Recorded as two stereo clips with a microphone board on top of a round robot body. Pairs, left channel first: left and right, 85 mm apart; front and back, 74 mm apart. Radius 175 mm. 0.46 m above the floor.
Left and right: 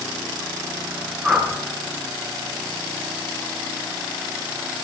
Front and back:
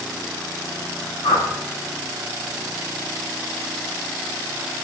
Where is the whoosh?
10° right, 4.5 m.